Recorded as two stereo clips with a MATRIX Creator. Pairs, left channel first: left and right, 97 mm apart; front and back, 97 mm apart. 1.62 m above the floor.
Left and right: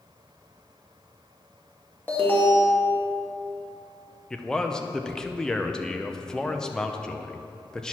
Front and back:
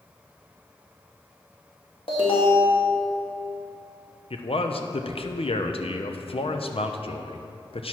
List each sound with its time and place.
2.1 s an alarm: 20° left, 2 m
4.3 s a man speaking: 5° left, 0.7 m